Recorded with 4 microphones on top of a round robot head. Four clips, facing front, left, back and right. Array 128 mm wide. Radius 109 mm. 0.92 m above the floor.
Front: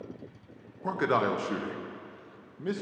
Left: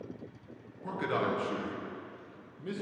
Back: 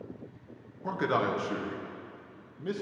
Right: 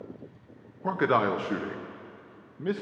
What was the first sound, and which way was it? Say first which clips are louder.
A man speaking: right 7 dB, front 2 dB; 75° right.